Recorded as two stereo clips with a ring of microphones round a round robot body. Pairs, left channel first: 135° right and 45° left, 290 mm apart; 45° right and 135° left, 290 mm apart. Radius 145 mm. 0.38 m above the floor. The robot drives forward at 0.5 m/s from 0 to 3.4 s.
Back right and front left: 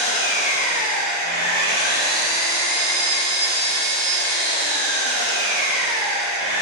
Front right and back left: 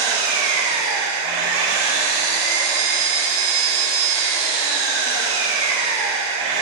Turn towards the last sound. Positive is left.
turn(degrees=170)